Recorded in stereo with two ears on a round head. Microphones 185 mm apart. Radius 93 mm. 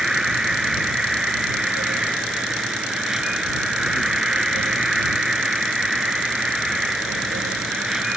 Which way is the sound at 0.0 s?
5° right (ahead or behind).